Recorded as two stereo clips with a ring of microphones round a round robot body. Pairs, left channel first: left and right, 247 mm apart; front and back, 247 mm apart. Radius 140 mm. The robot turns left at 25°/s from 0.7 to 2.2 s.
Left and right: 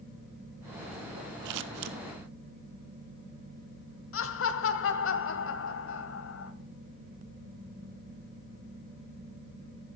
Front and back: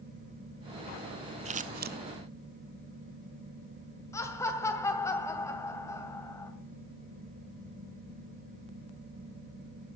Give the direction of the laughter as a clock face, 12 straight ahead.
9 o'clock.